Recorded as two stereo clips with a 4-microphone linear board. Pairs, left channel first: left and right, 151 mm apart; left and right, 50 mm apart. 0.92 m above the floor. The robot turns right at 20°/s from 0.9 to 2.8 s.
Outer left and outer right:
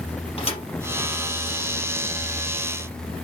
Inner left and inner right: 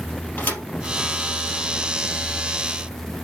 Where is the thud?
40° left (ahead or behind), 3 m.